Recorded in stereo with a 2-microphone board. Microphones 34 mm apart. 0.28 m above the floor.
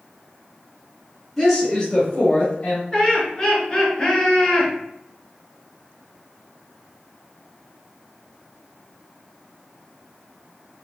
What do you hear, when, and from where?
1.4 s a woman speaking: 5° left (ahead or behind), 1.2 m; by 2.8 s 40° left (ahead or behind), 1.3 m
2.9 s laughter: 25° left (ahead or behind), 1.4 m